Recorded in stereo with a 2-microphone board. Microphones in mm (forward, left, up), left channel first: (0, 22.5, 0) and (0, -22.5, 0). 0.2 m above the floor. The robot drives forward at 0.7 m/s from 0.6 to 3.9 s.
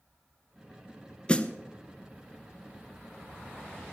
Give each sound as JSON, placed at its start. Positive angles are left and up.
{"t": 1.3, "sound": "a snare drum", "side_deg": 25, "distance_m": 0.8}